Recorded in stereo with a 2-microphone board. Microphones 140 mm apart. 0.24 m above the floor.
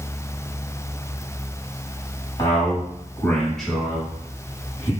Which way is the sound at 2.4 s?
35° left (ahead or behind).